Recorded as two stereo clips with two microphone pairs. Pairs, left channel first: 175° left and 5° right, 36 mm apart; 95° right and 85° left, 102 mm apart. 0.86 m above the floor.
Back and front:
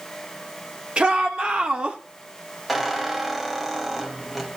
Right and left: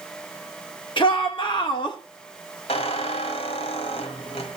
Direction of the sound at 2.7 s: 90° right.